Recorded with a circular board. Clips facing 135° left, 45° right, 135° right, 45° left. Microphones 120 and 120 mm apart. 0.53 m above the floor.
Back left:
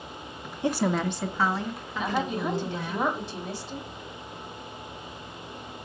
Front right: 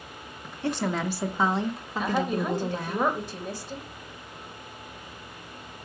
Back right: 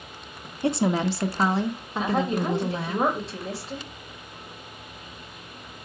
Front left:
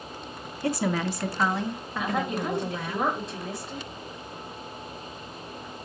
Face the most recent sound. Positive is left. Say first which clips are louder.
# front right 2 dB, back right 4 dB
turn(degrees=-80)